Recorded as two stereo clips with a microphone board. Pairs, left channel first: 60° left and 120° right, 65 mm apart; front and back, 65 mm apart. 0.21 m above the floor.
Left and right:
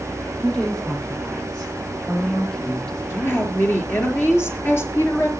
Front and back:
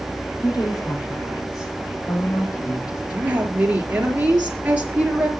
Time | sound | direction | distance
0.4 | a woman speaking | 15° right | 7.5 m
3.1 | a woman speaking | 110° left | 4.5 m